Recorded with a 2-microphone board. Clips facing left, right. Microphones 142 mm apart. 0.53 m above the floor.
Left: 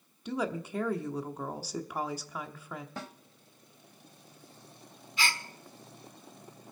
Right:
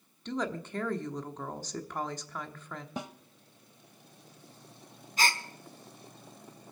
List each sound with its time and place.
0.2 s a woman speaking: 10° left (ahead or behind), 1.0 m
3.0 s a snare drum: 15° right (ahead or behind), 0.8 m
5.2 s a gasp: 40° right (ahead or behind), 1.0 m